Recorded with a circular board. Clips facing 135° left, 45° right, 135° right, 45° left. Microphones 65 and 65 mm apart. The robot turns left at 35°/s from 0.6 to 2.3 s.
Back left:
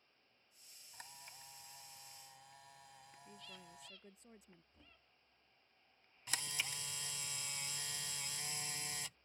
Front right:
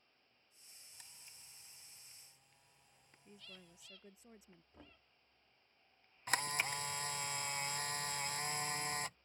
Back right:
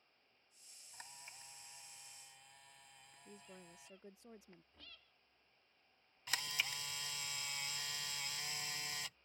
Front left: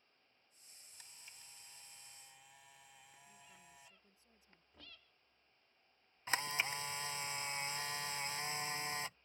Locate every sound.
0.9 s a camera shutter: straight behind; by 4.0 s 130° left
3.2 s a woman speaking: 130° right
4.7 s knocking: 30° right
6.3 s a camera shutter: 10° right